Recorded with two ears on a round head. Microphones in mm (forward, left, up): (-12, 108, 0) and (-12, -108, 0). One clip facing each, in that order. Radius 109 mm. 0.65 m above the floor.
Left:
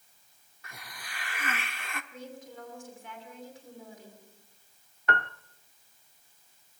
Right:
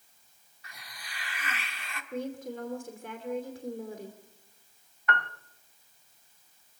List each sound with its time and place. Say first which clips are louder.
0.6 s a hiss: left 3 dB; 40° left (ahead or behind), 1.2 m
2.1 s a woman speaking: right 9 dB; 50° right (ahead or behind), 2.5 m
5.1 s a piano: left 1 dB; 25° left (ahead or behind), 0.6 m